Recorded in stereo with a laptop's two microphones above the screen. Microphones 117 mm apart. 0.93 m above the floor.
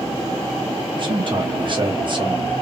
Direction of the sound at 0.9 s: 45° right (ahead or behind).